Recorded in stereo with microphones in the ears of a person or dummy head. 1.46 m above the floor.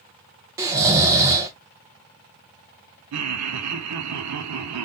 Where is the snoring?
15° right (ahead or behind), 0.8 m.